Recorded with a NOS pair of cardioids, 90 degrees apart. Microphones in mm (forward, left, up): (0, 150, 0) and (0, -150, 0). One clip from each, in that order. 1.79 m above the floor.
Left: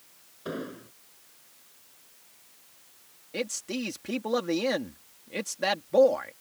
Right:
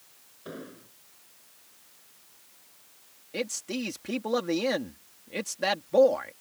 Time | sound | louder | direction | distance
0.5 | an explosion | left 6 dB | 45° left | ?
3.3 | a man speaking | even | straight ahead | ?